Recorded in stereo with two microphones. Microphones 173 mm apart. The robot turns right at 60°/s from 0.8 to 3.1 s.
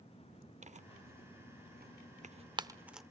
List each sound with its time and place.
0.6 s tearing paper: 45° right (ahead or behind), 0.6 m; by 3.0 s centre (ahead or behind), 0.6 m